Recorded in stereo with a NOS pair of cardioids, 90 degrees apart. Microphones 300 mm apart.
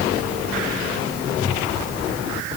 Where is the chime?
No chime in this recording.